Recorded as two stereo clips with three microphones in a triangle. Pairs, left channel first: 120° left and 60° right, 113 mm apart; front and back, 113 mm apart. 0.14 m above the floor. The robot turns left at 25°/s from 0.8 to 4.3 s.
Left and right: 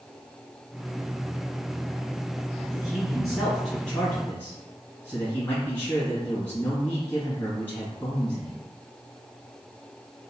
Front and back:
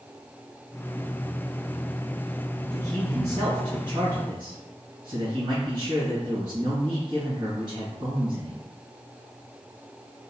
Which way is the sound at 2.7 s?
135° right.